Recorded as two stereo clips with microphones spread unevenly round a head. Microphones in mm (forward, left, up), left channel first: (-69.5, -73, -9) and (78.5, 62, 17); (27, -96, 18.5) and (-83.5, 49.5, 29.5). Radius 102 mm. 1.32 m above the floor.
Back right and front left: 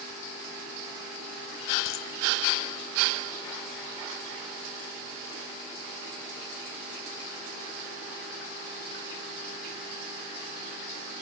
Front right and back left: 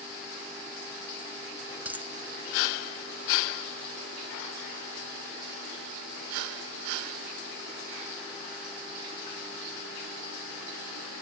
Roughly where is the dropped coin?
Behind right.